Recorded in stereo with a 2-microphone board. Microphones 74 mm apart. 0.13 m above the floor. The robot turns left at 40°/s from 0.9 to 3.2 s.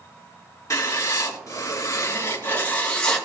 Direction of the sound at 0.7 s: 100° left.